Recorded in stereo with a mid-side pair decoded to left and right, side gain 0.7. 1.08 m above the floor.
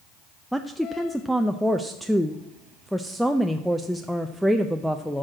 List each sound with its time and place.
0.5 s a woman speaking: straight ahead, 0.5 m